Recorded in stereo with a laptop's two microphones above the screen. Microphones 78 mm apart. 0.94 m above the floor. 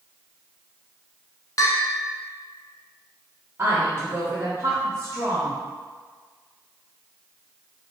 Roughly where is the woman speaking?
Right.